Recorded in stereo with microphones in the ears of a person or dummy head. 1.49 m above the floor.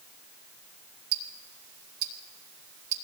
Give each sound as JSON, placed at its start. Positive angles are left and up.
{"t": 1.1, "sound": "ticking", "side_deg": -60, "distance_m": 1.6}